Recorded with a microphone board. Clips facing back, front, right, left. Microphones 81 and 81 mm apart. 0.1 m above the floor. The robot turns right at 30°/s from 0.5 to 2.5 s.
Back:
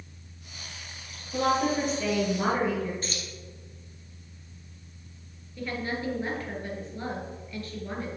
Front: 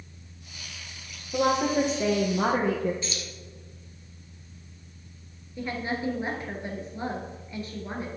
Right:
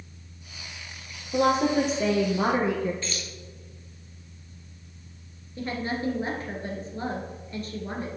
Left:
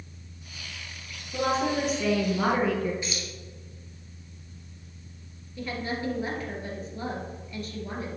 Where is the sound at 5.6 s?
60° right, 2 m.